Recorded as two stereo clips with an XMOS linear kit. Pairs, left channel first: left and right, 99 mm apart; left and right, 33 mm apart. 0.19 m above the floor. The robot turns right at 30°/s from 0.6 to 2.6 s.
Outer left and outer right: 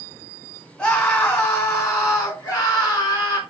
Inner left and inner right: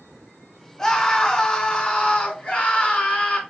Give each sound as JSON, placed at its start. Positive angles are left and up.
{"t": 0.8, "sound": "a scream", "azimuth_deg": 15, "distance_m": 1.8}